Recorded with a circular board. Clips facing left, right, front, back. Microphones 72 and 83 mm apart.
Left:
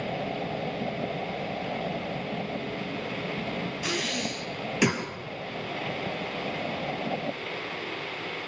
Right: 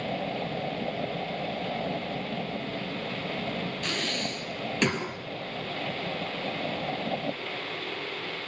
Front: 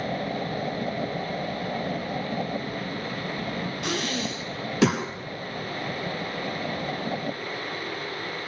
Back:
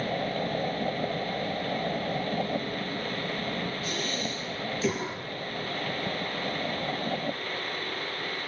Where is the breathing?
5° left, 6 m.